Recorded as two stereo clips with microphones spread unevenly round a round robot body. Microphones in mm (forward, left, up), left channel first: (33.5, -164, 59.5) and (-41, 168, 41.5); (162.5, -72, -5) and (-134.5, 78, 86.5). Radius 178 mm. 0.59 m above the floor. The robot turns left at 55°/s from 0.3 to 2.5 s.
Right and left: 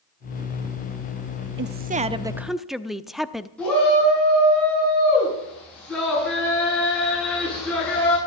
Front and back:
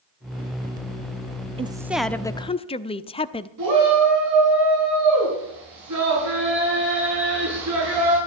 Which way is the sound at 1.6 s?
70° left.